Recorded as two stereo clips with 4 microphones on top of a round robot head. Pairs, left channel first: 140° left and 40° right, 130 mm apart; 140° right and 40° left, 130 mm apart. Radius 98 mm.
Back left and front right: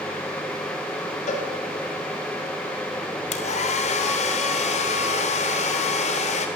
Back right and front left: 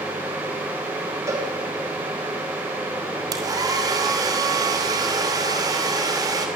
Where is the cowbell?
110° left, 3.5 m.